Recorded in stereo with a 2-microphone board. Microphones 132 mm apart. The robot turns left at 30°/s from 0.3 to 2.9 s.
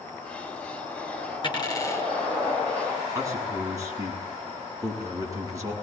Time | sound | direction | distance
1.4 | a dropped coin | 35° left (ahead or behind) | 6 m
3.1 | a man speaking | 25° right (ahead or behind) | 8 m